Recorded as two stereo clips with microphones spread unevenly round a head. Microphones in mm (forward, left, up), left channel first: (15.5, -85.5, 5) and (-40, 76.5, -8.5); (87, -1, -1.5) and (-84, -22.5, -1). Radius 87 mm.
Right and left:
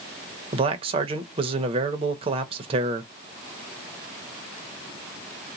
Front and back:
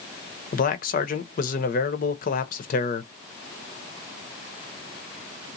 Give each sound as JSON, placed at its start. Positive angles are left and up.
{"t": 0.5, "sound": "a man speaking", "azimuth_deg": 50, "distance_m": 0.6}